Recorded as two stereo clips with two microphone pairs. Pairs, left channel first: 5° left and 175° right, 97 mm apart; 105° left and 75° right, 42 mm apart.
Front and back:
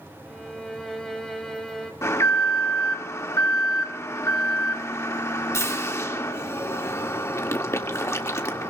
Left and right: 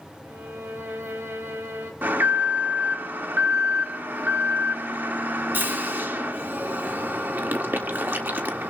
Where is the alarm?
50° right, 1.6 m.